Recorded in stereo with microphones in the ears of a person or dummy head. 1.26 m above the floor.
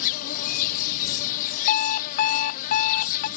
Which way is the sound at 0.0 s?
50° left (ahead or behind).